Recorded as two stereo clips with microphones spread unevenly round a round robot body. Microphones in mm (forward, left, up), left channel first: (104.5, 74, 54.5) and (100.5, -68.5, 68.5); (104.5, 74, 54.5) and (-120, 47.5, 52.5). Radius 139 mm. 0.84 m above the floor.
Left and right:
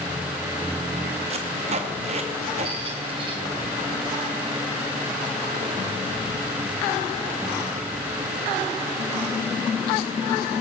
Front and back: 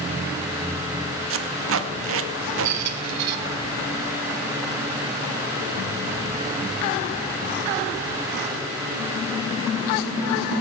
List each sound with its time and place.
1.3 s tape being pulled: 145° right, 1.0 m
2.6 s a squeak: 160° right, 1.1 m